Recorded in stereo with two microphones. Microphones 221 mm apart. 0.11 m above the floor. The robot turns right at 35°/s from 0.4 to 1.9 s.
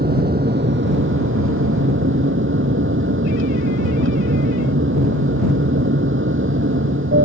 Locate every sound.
0.0 s an aircraft: 130° right; by 7.2 s 75° right